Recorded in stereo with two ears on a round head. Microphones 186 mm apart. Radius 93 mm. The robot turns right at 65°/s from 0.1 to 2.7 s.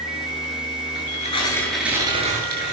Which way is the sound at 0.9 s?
125° left.